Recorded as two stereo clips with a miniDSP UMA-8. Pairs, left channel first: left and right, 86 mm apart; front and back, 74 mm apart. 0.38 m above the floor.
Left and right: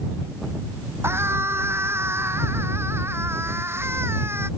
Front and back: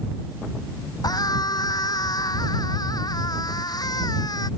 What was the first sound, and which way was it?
A scream, 30° right.